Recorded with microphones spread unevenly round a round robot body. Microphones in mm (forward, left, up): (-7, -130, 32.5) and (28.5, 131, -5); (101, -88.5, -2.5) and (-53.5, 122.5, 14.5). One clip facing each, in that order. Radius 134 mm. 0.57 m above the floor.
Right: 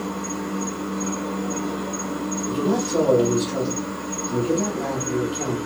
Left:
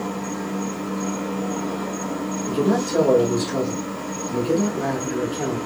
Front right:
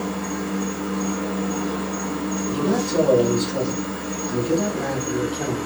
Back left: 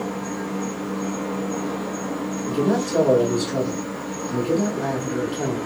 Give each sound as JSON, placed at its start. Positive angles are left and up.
{"t": 0.0, "sound": "an insect", "azimuth_deg": -10, "distance_m": 0.9}
{"t": 2.5, "sound": "a man speaking", "azimuth_deg": 115, "distance_m": 1.6}